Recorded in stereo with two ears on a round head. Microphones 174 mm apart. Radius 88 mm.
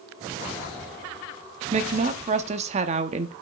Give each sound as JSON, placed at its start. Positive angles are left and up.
{"t": 1.7, "sound": "a woman speaking", "side_deg": -35, "distance_m": 0.8}